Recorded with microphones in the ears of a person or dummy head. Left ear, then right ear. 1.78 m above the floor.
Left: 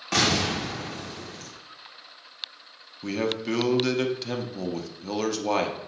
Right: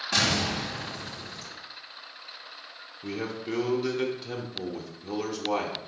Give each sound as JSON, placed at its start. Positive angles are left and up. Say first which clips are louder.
{"t": 0.1, "sound": "an explosion", "louder": "left 2 dB", "side_deg": 45, "distance_m": 2.5}
{"t": 3.0, "sound": "a man speaking", "louder": "left 6 dB", "side_deg": 40, "distance_m": 0.9}